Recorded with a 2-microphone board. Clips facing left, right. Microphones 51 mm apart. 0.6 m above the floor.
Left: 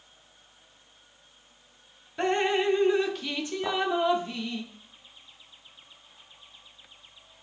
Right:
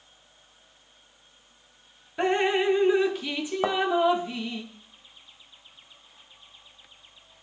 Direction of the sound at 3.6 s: 60° right (ahead or behind).